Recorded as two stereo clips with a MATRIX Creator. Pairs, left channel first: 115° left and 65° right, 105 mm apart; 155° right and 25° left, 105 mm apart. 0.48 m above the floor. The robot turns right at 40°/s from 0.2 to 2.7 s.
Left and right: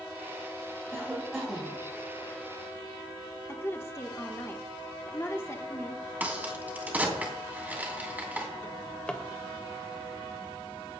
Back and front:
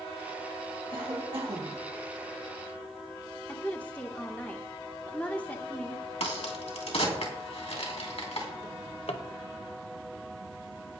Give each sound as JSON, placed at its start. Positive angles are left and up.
{"t": 0.9, "sound": "a cough", "azimuth_deg": -5, "distance_m": 3.0}
{"t": 3.5, "sound": "a woman speaking", "azimuth_deg": 145, "distance_m": 1.0}
{"t": 6.2, "sound": "a crack", "azimuth_deg": -140, "distance_m": 2.5}
{"t": 8.6, "sound": "a drawer", "azimuth_deg": -170, "distance_m": 0.9}